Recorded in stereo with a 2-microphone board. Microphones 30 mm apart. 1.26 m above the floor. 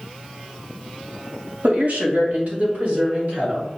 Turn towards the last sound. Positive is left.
turn(degrees=-55)  # may be behind; listen again after turning